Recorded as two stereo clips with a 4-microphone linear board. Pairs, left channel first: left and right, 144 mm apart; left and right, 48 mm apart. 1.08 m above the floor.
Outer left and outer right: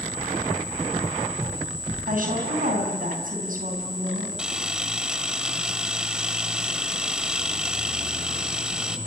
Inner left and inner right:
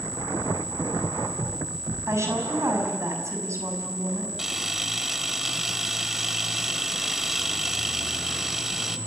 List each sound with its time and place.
2.1 s a woman speaking: 80° right, 7 m
4.4 s a camera shutter: 5° right (ahead or behind), 1.3 m